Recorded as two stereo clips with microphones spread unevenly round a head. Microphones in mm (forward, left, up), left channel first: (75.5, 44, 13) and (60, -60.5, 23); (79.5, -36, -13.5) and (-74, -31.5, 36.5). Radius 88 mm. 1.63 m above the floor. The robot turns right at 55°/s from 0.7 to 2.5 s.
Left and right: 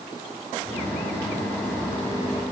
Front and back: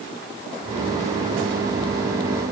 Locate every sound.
Only background noise.